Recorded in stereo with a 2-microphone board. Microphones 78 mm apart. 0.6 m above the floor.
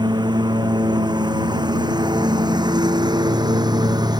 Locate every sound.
0.0 s a lawn mower: 70° right (ahead or behind); by 4.2 s 65° right (ahead or behind)